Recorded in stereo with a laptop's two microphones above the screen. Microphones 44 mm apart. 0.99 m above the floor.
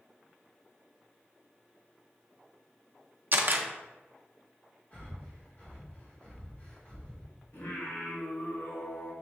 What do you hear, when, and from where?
3.3 s a camera shutter: 50° right (ahead or behind), 0.5 m
4.9 s breathing: 40° left (ahead or behind), 1.3 m
7.5 s singing: 75° left (ahead or behind), 1.8 m